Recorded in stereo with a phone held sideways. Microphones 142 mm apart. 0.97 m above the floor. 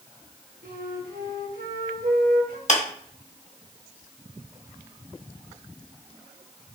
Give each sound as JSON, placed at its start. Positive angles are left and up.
{"t": 0.6, "sound": "a flute", "side_deg": -80, "distance_m": 1.2}
{"t": 2.7, "sound": "a clap", "side_deg": 55, "distance_m": 1.1}